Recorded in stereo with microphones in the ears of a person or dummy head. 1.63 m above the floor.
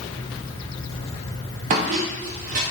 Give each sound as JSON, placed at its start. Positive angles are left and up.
{"t": 1.7, "sound": "a squeak", "side_deg": -35, "distance_m": 0.5}